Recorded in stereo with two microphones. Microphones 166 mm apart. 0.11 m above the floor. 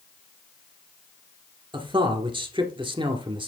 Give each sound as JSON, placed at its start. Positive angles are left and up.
{"t": 1.7, "sound": "a man speaking", "side_deg": -30, "distance_m": 1.6}